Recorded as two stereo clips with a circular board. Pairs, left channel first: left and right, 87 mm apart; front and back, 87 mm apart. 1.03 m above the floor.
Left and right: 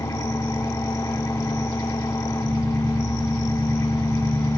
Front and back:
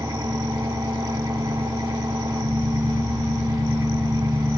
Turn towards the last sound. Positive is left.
turn(degrees=140)